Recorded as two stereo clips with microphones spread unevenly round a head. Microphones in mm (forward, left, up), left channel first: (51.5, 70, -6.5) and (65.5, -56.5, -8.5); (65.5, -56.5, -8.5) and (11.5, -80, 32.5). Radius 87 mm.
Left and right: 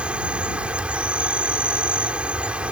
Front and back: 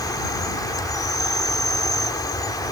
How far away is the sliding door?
No sliding door in this recording.